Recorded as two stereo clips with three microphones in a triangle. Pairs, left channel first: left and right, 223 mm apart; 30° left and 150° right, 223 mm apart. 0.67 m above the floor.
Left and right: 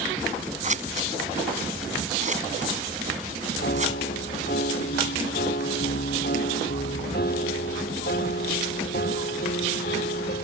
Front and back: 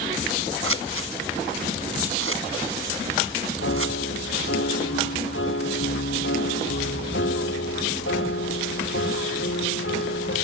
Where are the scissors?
145° right.